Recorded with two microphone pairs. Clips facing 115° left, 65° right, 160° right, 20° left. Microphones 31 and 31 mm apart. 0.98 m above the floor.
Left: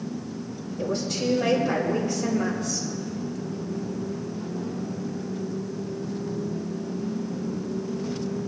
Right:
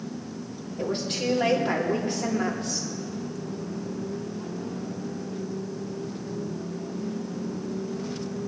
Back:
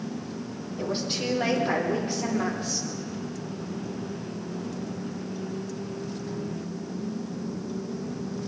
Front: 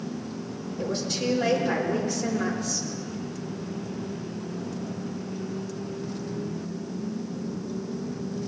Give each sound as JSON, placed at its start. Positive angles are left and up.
{"t": 0.8, "sound": "a woman speaking", "azimuth_deg": -105, "distance_m": 2.5}